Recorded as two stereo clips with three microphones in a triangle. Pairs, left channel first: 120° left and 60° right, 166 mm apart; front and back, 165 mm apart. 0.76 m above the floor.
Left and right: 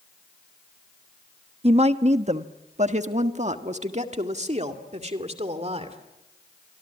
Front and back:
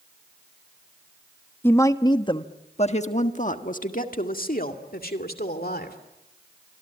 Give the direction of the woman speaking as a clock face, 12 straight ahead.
2 o'clock.